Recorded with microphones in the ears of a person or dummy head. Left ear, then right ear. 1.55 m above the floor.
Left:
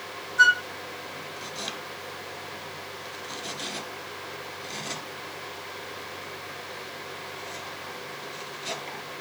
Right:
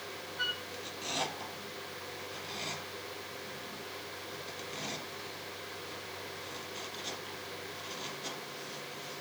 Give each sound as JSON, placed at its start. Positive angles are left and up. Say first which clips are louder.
{"t": 0.4, "sound": "a flute", "louder": "left 17 dB", "side_deg": 50}